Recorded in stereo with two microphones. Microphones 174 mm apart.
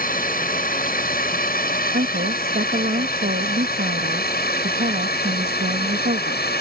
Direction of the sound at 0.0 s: 55° left (ahead or behind).